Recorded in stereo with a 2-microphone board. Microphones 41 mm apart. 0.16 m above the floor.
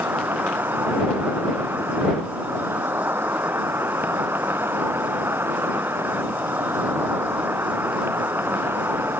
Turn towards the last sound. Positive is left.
turn(degrees=-75)  # may be behind; listen again after turning